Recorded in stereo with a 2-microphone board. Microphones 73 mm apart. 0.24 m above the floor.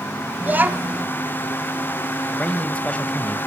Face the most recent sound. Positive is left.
turn(degrees=20)  # may be behind; listen again after turning